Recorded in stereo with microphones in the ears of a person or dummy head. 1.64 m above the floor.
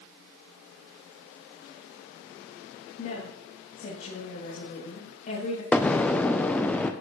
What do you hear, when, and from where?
3.0 s a woman speaking: 50° left (ahead or behind), 2.5 m
5.7 s an explosion: 10° left (ahead or behind), 0.5 m